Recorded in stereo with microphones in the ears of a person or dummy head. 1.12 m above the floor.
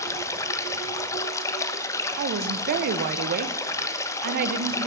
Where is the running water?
15° left (ahead or behind), 0.9 m.